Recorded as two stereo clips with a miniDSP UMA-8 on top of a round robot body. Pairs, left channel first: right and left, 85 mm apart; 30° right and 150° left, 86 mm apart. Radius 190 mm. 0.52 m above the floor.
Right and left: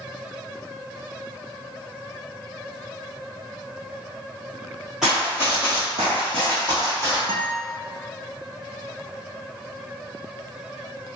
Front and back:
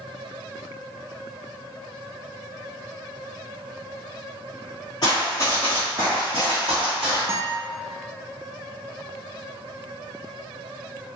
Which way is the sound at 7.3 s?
90° left.